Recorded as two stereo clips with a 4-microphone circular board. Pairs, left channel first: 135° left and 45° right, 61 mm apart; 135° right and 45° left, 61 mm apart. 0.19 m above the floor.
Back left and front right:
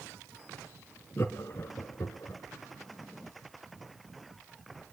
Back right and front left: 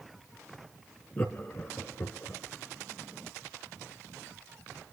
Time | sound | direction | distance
1.2 | laughter | 175° left | 2 m